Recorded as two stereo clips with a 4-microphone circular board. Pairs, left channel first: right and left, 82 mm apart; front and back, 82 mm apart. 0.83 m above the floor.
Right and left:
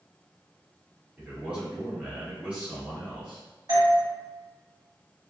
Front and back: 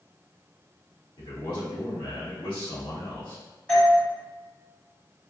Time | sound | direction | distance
1.2 | a man speaking | 15° left | 1.6 m
3.7 | a doorbell | 75° left | 1.7 m